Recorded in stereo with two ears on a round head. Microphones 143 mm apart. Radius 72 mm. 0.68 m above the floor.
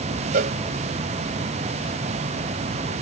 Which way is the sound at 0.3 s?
60° right (ahead or behind).